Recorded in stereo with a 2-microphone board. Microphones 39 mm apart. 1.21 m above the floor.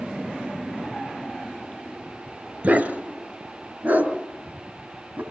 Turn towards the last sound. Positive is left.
turn(degrees=-65)  # may be behind; listen again after turning